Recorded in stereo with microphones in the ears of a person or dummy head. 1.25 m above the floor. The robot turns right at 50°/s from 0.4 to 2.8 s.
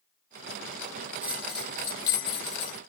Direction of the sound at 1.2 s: 10° right.